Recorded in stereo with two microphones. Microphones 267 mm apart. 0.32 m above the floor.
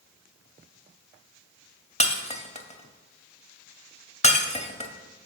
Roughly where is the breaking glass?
Left.